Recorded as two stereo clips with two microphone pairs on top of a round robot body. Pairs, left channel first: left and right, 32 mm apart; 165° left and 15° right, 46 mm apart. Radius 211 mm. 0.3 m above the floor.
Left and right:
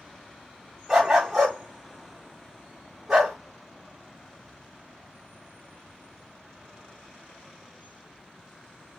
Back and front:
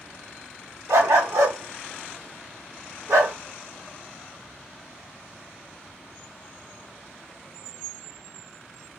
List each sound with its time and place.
0.9 s a dog barking: 10° right, 1.7 m